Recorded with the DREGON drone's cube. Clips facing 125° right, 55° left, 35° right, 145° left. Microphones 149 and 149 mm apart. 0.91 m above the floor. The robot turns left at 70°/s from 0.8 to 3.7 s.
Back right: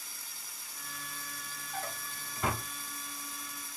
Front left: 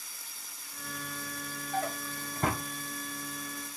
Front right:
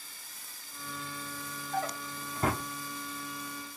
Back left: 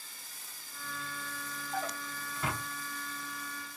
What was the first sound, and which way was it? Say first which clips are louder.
A drawer: front left 7 dB, front right 3 dB; 60° left.